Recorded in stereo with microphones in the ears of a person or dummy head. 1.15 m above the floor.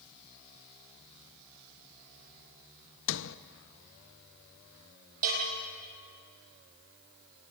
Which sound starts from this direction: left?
A sliding door, at 3.1 s.